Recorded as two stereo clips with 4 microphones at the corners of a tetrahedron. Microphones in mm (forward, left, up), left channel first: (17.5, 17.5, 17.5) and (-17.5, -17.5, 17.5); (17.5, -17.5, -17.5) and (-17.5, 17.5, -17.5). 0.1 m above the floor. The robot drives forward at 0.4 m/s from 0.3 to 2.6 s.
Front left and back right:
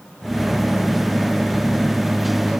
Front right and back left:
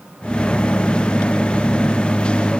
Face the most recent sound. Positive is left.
No sound to turn to.